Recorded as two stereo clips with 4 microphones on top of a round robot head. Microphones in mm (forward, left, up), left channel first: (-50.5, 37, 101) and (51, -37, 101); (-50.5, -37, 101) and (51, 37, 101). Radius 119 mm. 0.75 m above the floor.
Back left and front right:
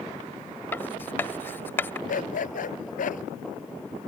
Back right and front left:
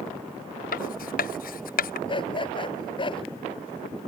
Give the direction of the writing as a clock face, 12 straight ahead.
5 o'clock.